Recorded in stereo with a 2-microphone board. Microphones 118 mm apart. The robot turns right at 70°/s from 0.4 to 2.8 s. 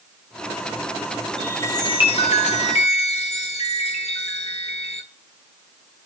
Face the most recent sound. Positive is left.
turn(degrees=110)